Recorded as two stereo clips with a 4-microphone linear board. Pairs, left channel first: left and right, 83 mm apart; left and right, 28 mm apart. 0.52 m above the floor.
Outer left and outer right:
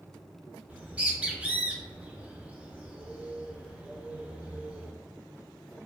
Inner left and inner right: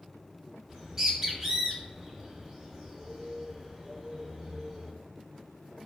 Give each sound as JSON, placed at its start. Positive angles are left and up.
{"t": 0.7, "sound": "a bird", "side_deg": -15, "distance_m": 0.5}